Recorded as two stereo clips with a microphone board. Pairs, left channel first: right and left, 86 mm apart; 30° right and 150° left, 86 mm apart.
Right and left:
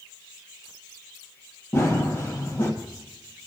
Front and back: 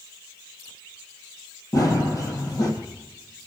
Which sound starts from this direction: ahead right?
Running footsteps, at 1.7 s.